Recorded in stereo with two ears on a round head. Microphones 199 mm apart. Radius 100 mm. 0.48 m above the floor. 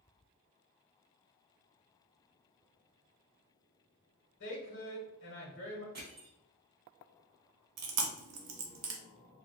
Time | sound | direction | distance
4.4 | a woman speaking | 60° left (ahead or behind) | 1.2 m
6.0 | crushing | 40° right (ahead or behind) | 1.8 m
7.8 | chewing | 80° right | 0.7 m